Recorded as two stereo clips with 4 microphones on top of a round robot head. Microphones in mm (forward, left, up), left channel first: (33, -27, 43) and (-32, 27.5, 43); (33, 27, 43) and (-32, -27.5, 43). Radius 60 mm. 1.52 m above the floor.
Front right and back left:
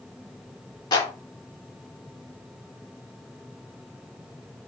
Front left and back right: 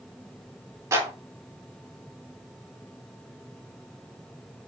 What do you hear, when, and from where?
0.9 s a clap: 80° right, 3 m